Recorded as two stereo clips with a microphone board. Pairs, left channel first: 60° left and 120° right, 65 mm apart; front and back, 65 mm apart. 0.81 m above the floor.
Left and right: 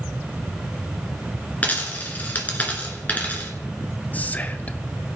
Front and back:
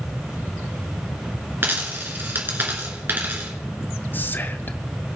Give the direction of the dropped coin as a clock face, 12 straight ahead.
8 o'clock.